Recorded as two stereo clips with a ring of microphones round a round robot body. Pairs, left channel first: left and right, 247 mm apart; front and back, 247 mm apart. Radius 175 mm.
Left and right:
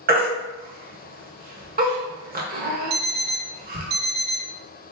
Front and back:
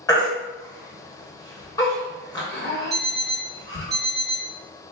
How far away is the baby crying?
About 0.9 m.